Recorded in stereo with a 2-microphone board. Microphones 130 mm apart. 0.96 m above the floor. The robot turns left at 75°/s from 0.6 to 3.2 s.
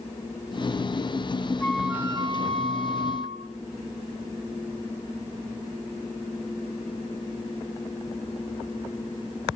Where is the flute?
15° left, 2.0 m; by 3.5 s 105° right, 2.0 m.